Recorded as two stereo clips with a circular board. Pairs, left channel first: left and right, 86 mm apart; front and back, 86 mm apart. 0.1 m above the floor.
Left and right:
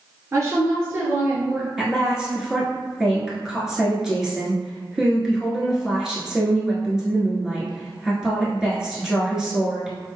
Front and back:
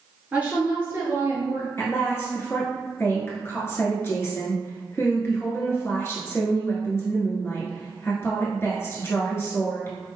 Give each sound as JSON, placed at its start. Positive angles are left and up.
{"t": 0.3, "sound": "a woman speaking", "azimuth_deg": -115, "distance_m": 1.6}
{"t": 1.8, "sound": "a woman speaking", "azimuth_deg": -15, "distance_m": 1.9}